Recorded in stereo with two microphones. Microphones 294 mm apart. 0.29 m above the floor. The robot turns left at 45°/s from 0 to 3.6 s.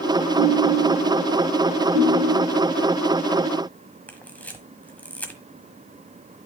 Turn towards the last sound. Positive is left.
turn(degrees=5)  # may be behind; listen again after turning